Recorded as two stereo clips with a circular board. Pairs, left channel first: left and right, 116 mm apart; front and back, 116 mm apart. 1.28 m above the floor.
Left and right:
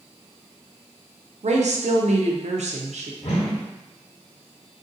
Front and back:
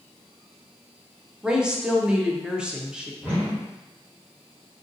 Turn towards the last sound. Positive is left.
turn(degrees=110)